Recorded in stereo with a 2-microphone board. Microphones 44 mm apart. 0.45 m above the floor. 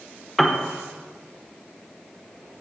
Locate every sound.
0.4 s a piano: 5° left (ahead or behind), 0.6 m